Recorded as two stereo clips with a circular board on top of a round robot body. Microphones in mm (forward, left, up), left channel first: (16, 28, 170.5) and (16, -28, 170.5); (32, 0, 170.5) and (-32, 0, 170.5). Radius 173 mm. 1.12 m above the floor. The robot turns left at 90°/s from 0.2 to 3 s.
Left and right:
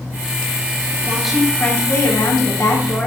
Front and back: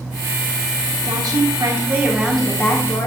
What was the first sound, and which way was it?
A woman speaking, 155° right.